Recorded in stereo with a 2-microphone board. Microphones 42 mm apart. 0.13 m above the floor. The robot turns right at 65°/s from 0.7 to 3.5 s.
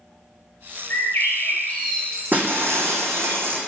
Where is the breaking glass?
135° right, 1.1 m; by 3.6 s 55° right, 1.1 m.